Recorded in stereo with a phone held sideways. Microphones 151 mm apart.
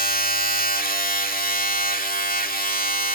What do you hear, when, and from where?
0.0 s a machine running: 70° left (ahead or behind), 2 m